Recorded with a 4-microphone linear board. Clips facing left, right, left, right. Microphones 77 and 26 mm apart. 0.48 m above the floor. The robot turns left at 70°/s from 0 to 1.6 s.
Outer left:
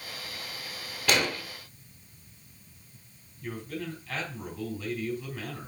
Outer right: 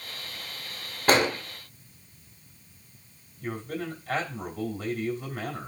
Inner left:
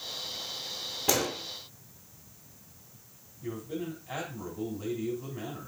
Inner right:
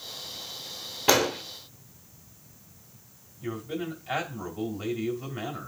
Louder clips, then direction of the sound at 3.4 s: Outer right 3 dB, inner right 3 dB; 65° right (ahead or behind).